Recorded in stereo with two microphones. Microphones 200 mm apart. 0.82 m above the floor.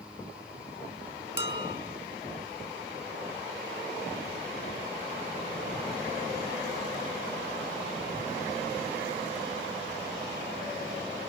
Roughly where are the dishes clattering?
Left.